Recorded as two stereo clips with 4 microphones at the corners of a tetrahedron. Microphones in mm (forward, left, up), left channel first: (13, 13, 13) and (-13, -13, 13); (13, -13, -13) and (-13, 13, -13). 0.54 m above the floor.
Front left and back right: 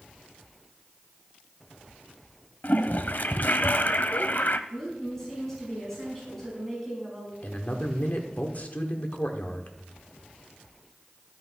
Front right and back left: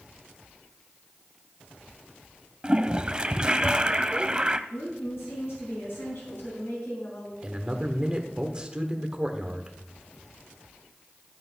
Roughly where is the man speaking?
Left.